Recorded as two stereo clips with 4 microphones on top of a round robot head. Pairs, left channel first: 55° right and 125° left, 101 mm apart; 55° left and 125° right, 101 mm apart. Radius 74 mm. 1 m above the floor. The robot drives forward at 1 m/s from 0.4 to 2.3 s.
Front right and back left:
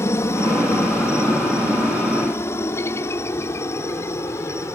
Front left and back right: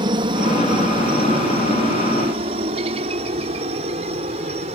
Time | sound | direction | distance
0.0 | a helicopter | 110° right | ?